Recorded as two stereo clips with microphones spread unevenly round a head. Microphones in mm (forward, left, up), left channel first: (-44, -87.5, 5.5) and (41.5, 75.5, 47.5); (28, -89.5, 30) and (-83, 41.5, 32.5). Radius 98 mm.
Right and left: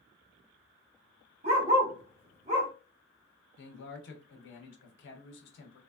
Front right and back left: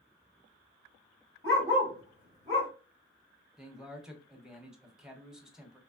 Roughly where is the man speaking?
Behind right.